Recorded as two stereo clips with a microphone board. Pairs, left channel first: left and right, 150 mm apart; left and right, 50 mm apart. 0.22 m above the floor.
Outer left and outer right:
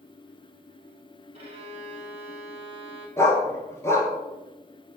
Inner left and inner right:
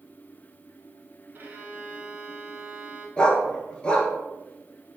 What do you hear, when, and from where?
1.3 s a violin: 45° right (ahead or behind), 0.9 m
3.2 s a dog barking: 20° left (ahead or behind), 0.7 m